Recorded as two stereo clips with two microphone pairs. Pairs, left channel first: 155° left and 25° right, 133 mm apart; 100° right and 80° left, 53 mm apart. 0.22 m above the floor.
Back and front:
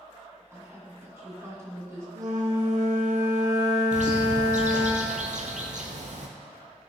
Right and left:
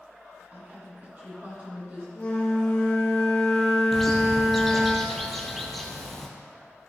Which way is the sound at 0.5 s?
35° left.